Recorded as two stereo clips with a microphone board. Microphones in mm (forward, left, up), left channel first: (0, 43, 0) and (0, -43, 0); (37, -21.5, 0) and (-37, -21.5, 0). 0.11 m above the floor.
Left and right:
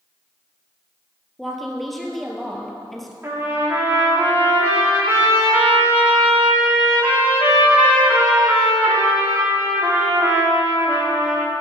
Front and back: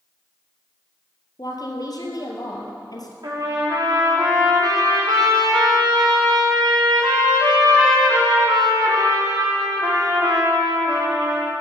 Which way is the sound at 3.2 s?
155° right.